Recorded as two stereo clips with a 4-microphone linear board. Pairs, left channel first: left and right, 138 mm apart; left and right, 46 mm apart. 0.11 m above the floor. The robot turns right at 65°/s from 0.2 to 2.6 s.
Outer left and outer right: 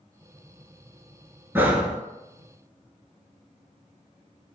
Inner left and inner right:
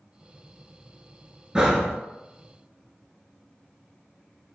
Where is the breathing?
15° right (ahead or behind), 0.6 m; by 2.0 s centre (ahead or behind), 0.6 m.